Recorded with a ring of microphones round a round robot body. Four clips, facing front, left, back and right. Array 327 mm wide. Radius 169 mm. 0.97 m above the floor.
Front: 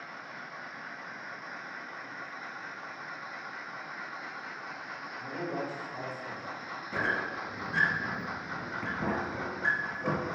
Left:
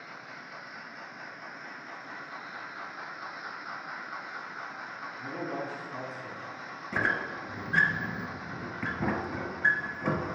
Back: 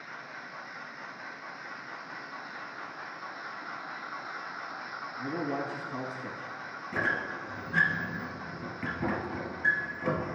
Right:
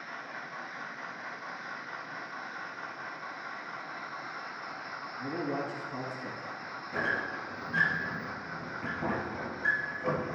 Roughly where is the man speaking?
Behind right.